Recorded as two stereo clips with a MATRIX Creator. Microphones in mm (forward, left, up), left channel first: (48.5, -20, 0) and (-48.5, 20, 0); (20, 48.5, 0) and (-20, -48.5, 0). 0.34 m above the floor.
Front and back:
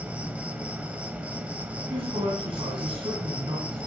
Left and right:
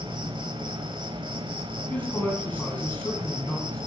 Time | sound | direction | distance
0.0 | an insect | 130° right | 1.5 m
1.9 | a man speaking | 140° left | 3 m